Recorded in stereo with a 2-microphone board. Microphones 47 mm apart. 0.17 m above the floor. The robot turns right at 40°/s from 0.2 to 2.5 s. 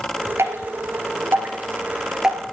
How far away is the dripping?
About 2.0 m.